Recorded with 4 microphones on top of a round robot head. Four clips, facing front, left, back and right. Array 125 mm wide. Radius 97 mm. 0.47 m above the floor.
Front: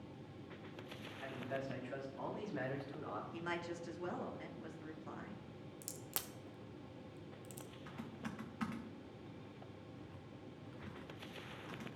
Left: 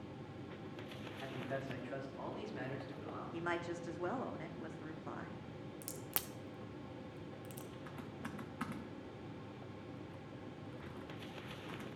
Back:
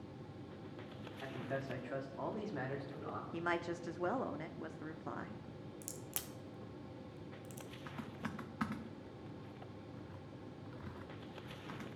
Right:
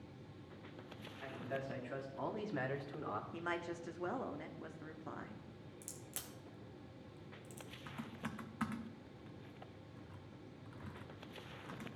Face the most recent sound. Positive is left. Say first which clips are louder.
# right 4 dB, back 2 dB
turn(degrees=-160)